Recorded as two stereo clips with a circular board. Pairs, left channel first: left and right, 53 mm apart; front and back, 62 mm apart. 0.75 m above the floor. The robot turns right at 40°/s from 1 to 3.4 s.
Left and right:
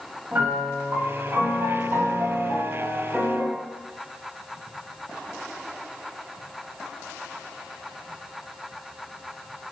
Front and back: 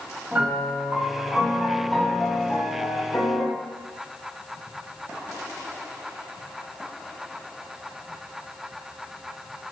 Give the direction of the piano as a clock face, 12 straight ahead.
4 o'clock.